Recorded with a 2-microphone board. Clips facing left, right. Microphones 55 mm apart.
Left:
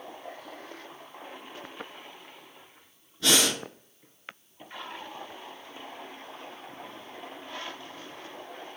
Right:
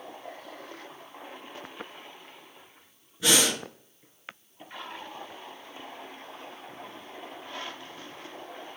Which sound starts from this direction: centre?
Breathing, at 3.2 s.